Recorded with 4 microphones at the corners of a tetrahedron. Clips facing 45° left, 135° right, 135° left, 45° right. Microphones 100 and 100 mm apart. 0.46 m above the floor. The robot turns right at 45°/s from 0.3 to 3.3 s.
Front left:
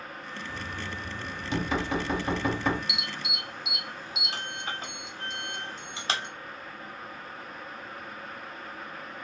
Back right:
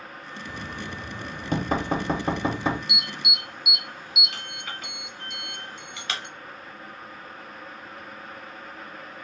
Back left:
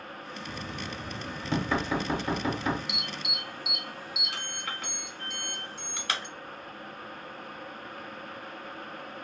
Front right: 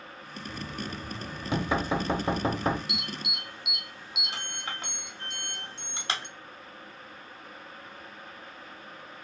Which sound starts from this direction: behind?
Knocking, at 0.5 s.